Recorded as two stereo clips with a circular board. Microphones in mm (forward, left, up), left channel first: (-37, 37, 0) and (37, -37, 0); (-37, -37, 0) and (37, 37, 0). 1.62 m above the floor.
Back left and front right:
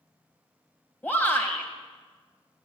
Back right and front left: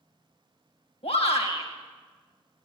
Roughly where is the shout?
Behind right.